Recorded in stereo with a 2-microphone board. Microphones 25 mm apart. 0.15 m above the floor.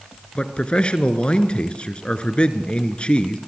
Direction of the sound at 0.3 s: 45° left (ahead or behind).